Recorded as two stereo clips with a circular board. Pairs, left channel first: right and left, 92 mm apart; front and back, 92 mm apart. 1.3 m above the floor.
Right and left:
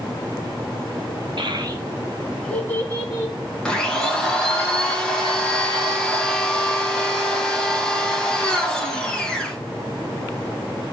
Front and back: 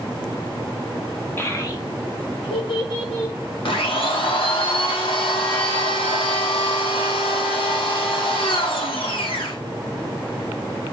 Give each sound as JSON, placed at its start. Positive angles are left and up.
{"t": 1.4, "sound": "a child speaking", "azimuth_deg": 65, "distance_m": 1.4}
{"t": 3.6, "sound": "a blender", "azimuth_deg": -10, "distance_m": 1.8}